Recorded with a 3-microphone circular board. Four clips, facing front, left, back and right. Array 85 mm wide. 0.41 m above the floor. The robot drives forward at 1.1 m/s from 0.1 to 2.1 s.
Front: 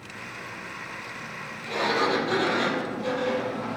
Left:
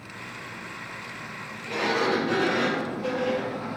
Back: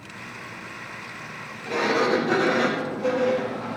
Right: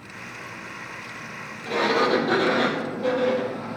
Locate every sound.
1.6 s a sliding door: 130° right, 3.5 m; by 3.6 s 135° right, 3.5 m